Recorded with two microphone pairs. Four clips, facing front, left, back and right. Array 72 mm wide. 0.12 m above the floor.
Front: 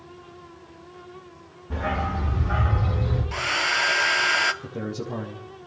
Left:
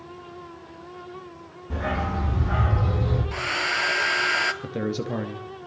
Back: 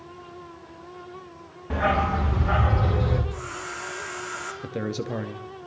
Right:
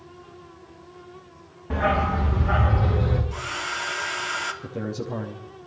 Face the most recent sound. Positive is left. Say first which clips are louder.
# left 3 dB, back 2 dB
turn(degrees=140)